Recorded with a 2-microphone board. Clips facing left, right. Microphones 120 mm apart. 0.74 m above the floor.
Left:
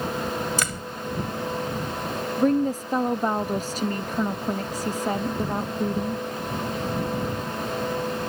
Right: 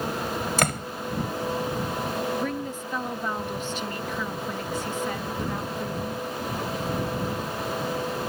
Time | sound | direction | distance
0.6 | a door slam | 60° right (ahead or behind) | ?
2.4 | a woman speaking | 40° left (ahead or behind) | ?